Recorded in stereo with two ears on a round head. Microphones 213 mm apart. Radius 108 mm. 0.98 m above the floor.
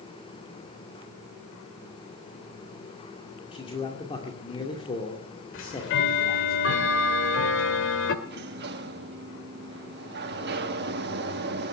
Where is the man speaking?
25° left (ahead or behind), 2.5 m.